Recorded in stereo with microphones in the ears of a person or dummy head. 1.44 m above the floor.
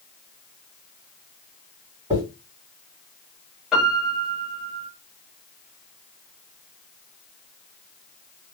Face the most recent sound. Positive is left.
turn(degrees=-5)  # may be behind; listen again after turning